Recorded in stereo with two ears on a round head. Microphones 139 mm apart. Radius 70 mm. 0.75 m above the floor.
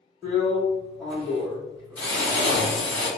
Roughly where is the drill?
Centre.